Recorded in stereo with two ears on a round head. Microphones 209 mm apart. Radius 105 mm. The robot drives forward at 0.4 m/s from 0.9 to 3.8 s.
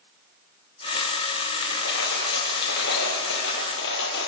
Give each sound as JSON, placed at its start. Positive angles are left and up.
{"t": 1.6, "sound": "a dropped coin", "side_deg": 45, "distance_m": 9.5}